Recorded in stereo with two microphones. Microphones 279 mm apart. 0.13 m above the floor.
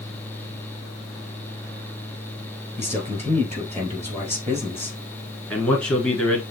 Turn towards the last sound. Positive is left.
turn(degrees=5)  # may be behind; listen again after turning